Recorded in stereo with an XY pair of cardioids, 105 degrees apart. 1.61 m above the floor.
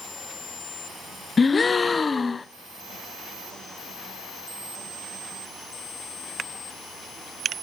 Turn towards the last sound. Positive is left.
turn(degrees=30)